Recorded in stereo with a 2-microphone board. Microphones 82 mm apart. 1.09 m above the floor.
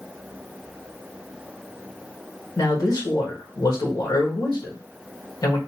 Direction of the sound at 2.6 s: 45° left (ahead or behind).